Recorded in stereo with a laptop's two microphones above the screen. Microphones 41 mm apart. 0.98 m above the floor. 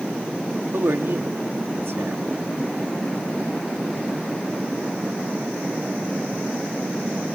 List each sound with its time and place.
0.7 s a man speaking: 70° right (ahead or behind), 1.7 m